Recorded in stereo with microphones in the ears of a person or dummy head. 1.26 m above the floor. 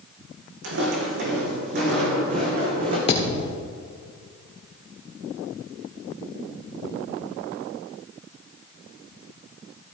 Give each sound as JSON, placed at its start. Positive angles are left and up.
{"t": 0.6, "sound": "footsteps", "side_deg": -65, "distance_m": 4.0}
{"t": 3.1, "sound": "a thud", "side_deg": 30, "distance_m": 1.6}